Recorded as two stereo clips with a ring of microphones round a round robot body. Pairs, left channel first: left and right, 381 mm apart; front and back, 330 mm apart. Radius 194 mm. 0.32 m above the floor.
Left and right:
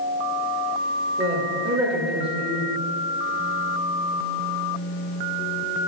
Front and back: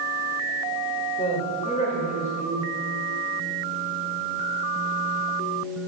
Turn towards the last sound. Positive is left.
turn(degrees=-35)